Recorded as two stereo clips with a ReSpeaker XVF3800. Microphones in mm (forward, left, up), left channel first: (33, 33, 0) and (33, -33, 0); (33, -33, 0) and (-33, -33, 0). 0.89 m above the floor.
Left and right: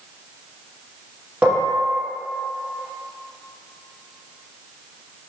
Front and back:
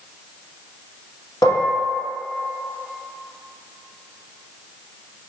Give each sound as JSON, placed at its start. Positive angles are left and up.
{"t": 1.4, "sound": "dishes clattering", "azimuth_deg": -15, "distance_m": 1.2}